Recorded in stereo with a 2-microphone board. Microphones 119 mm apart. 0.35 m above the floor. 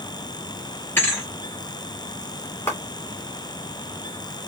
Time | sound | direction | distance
1.0 | a thud | 20° left (ahead or behind) | 3.5 m
2.7 | a clap | 20° left (ahead or behind) | 2.5 m